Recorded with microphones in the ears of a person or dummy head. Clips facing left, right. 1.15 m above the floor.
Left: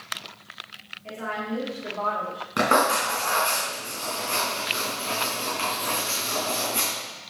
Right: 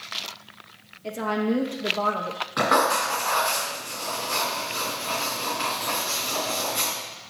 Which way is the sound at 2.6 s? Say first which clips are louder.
Left 1 dB; 40° left (ahead or behind).